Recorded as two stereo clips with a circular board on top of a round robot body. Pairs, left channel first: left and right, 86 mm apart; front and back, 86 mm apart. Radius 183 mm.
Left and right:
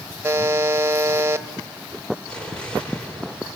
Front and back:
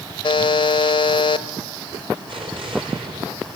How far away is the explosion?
About 6 m.